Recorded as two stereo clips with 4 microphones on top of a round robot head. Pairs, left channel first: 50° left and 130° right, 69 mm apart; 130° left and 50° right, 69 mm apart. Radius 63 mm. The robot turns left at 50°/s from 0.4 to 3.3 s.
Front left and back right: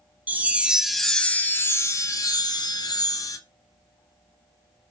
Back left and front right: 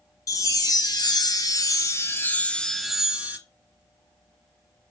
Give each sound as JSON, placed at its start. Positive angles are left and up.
{"t": 0.3, "sound": "a chime", "azimuth_deg": 165, "distance_m": 0.6}